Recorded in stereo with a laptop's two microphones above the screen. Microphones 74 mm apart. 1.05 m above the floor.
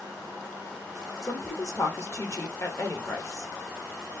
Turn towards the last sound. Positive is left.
turn(degrees=40)  # may be behind; listen again after turning